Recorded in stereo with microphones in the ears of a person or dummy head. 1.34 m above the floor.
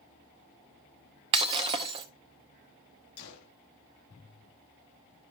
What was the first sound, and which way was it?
Breaking glass, 30° right (ahead or behind).